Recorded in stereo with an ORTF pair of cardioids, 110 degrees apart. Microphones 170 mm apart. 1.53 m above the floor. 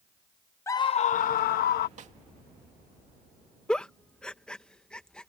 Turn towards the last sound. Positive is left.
turn(degrees=5)